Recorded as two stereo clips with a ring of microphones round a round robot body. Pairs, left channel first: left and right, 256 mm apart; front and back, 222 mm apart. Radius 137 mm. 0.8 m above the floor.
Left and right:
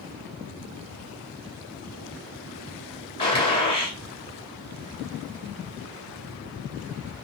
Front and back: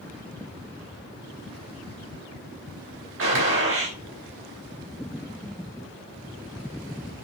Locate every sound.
3.2 s a gunshot: 160° left, 3.5 m